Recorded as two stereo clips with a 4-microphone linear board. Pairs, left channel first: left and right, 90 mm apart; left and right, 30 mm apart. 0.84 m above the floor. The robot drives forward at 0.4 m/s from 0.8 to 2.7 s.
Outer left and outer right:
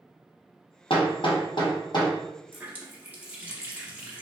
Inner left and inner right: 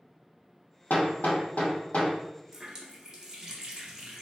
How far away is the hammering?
About 0.7 m.